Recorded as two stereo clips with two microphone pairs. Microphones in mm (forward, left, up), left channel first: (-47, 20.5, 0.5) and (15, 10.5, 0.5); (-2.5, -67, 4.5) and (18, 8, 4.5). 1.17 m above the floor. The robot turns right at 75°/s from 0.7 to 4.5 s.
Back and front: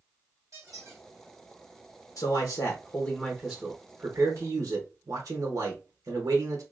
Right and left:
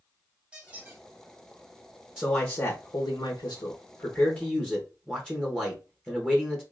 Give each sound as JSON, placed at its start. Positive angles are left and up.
{"t": 0.5, "sound": "a squeak", "azimuth_deg": 0, "distance_m": 2.0}
{"t": 2.2, "sound": "a man speaking", "azimuth_deg": 155, "distance_m": 1.0}